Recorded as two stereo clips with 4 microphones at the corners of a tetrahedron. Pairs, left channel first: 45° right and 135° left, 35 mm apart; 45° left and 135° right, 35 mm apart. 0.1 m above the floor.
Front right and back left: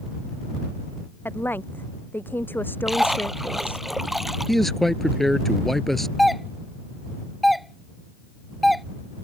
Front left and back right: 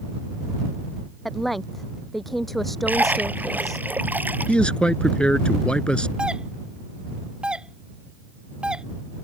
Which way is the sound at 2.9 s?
140° right.